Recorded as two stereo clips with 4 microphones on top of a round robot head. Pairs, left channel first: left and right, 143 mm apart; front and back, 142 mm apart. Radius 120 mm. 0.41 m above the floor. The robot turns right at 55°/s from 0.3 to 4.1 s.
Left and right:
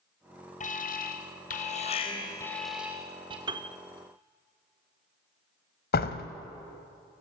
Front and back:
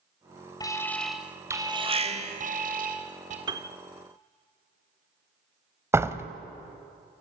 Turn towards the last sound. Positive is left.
turn(degrees=110)